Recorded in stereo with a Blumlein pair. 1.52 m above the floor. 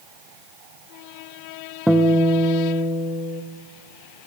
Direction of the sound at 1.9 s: Straight ahead.